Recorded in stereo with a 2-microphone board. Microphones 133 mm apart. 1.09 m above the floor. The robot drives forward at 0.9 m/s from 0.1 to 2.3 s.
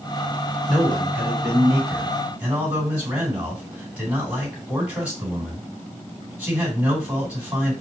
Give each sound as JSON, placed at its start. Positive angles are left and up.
{"t": 0.7, "sound": "a man speaking", "side_deg": -10, "distance_m": 2.5}